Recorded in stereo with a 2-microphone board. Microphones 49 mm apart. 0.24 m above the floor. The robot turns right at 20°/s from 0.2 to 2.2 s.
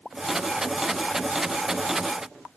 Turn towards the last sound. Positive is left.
No sound to turn to.